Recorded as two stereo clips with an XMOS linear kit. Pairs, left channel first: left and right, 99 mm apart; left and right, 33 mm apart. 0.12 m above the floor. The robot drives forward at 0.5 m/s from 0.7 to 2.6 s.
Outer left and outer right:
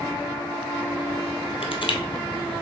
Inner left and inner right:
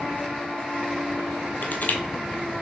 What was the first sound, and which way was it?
Crushing, 70° left (ahead or behind).